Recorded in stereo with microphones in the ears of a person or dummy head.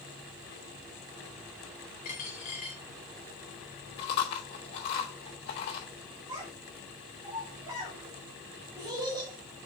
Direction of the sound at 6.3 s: 20° right (ahead or behind).